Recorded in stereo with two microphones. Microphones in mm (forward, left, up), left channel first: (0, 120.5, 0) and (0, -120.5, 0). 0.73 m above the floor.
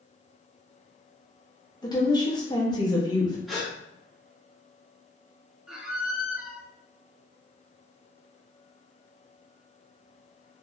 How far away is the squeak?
About 0.6 m.